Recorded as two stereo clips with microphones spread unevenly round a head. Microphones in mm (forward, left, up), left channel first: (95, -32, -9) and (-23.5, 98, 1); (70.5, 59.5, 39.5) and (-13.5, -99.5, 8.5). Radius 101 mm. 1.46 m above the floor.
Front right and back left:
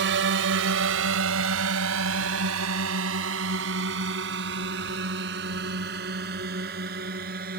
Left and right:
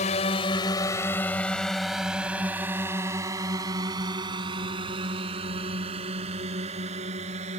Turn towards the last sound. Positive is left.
turn(degrees=-175)